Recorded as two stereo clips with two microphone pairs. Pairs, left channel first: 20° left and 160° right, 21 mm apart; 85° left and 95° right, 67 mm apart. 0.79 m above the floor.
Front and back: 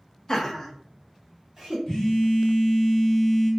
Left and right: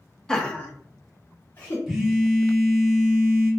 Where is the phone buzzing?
10° right, 1.1 m.